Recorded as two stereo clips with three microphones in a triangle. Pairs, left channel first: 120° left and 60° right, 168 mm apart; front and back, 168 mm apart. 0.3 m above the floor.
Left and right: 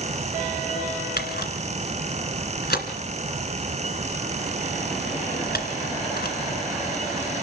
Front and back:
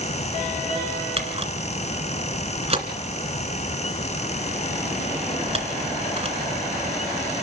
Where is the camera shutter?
130° left, 2 m.